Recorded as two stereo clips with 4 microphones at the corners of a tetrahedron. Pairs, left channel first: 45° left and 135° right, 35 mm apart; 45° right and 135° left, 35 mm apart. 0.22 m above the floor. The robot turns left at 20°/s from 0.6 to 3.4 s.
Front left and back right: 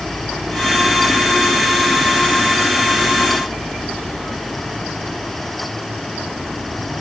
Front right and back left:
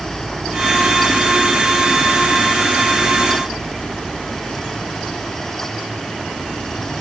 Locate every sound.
Only background noise.